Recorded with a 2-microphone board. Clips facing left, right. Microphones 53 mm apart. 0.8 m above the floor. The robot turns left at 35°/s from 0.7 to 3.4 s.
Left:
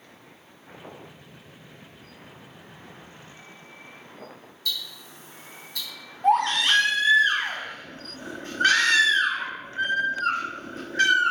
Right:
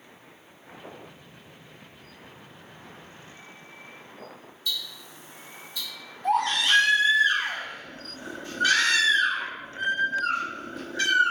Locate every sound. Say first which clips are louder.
4.7 s ticking: left 1 dB; 85° left, 1.0 m
6.2 s a baby crying: left 3 dB; 50° left (ahead or behind), 1.5 m